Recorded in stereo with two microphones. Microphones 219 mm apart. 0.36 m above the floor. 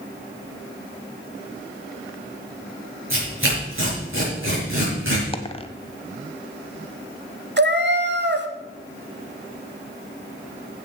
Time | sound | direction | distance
3.1 | tearing paper | 70° right (ahead or behind) | 5 m
5.3 | a dropped coin | 25° left (ahead or behind) | 0.8 m
7.6 | a cat meowing | 50° right (ahead or behind) | 0.9 m